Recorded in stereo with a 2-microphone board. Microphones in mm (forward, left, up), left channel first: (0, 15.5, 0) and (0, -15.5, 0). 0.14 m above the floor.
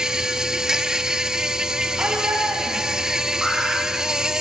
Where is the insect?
20° right (ahead or behind), 0.8 m.